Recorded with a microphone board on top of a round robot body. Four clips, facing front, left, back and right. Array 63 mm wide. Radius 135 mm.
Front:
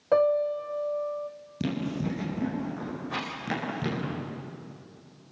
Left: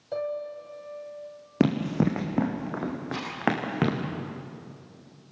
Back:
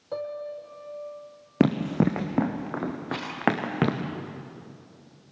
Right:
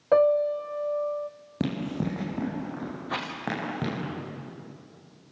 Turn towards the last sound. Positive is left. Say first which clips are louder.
# right 1 dB, back 1 dB
turn(degrees=-95)